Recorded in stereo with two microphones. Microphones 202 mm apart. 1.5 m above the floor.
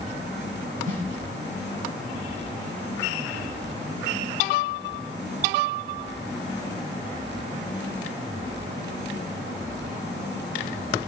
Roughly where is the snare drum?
Right.